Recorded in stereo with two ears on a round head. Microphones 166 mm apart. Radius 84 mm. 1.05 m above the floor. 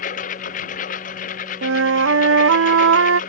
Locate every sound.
0.0 s a lawn mower: 45° left (ahead or behind)
1.6 s a flute: 80° right